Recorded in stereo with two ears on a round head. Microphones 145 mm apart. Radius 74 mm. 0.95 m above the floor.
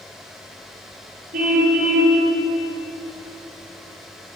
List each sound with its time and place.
1.3 s a car horn: 50° right (ahead or behind), 10 m